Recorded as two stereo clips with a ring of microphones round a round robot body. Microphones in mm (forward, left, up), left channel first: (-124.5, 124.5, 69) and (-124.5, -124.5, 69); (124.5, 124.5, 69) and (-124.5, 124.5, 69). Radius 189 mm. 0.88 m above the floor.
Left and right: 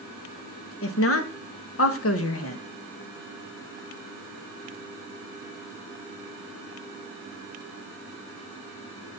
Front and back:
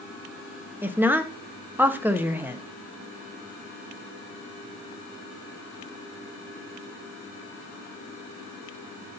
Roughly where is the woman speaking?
Left.